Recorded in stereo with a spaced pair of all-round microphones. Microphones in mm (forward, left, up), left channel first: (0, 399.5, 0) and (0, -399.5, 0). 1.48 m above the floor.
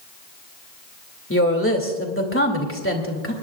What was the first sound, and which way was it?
A woman speaking, 15° left (ahead or behind).